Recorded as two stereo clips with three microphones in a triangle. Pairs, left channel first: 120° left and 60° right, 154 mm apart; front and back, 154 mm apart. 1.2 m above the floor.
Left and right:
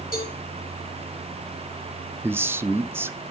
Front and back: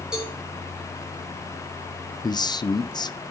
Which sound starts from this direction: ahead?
A man speaking, at 2.2 s.